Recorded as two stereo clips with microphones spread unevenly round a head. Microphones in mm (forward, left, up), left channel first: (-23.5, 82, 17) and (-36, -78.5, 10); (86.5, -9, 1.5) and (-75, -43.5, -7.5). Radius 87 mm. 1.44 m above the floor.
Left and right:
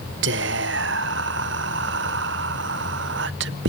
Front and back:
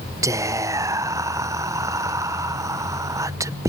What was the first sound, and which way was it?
Whispering, 95° right.